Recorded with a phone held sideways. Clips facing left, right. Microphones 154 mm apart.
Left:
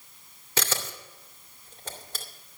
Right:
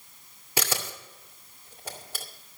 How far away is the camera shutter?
About 2 m.